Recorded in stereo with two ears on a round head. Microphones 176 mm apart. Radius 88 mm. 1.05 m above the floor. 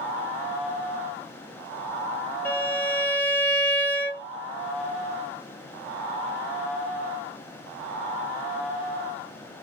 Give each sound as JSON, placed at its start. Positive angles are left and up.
{"t": 2.5, "sound": "a violin", "side_deg": 10, "distance_m": 0.6}